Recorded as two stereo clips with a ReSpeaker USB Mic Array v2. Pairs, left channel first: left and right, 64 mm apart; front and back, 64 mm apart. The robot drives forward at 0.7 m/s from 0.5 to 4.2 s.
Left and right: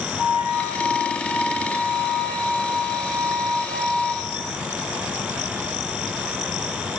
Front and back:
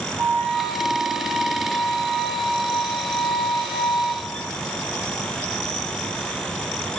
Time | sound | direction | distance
0.2 | a flute | 110° left | 6.5 m